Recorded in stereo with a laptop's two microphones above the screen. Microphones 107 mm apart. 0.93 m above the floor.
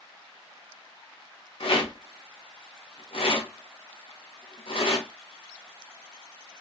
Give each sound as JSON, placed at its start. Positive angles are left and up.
{"t": 1.6, "sound": "a rattle", "side_deg": 60, "distance_m": 0.8}